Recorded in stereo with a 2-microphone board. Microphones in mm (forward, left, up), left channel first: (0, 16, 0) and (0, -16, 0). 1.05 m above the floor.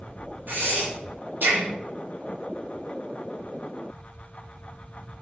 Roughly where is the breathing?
Right.